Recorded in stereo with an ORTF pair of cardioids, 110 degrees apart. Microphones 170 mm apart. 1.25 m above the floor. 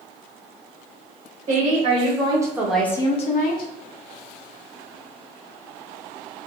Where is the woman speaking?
40° right, 1.3 m; by 3.7 s 75° left, 0.7 m.